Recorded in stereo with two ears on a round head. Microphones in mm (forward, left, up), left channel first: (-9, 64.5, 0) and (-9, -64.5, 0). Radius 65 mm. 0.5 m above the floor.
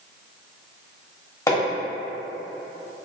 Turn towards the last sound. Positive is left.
turn(degrees=20)  # may be behind; listen again after turning